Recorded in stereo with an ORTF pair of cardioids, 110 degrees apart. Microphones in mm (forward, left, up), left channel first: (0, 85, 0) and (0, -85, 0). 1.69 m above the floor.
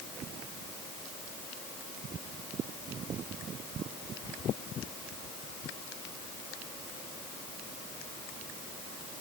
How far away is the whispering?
I don't hear whispering.